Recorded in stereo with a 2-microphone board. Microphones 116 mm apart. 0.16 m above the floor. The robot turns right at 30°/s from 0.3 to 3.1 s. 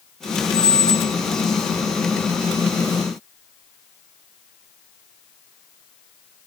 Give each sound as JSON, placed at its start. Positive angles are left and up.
{"t": 0.5, "sound": "a squeak", "side_deg": 35, "distance_m": 0.6}